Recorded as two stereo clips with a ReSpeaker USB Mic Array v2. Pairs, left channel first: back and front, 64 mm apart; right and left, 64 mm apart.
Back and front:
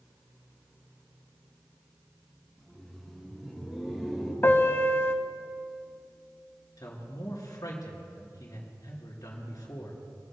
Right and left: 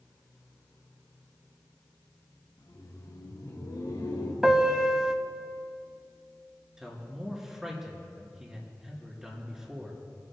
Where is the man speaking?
175° left, 3 m.